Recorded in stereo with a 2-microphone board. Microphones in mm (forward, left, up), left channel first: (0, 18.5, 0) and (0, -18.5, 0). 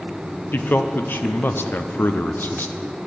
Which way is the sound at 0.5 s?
60° left (ahead or behind).